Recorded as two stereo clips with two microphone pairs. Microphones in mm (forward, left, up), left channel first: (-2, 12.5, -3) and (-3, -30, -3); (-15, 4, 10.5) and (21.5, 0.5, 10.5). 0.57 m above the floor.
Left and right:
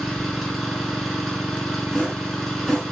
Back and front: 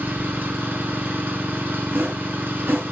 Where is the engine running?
Straight ahead, 4 m.